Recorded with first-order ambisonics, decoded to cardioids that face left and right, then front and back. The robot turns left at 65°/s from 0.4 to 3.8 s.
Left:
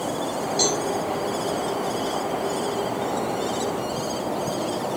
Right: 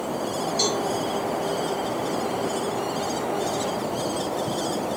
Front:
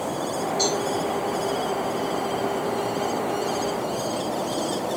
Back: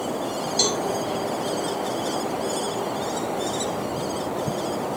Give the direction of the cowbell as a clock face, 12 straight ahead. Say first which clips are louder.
Left 2 dB, back 2 dB; 6 o'clock.